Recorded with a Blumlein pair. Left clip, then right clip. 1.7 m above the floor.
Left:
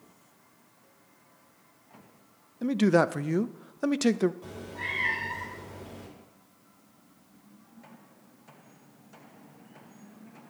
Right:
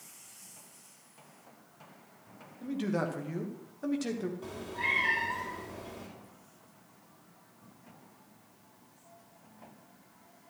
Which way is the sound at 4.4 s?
5° right.